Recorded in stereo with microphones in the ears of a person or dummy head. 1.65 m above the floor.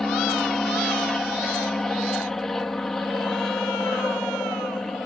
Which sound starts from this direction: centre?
An aircraft, at 0.0 s.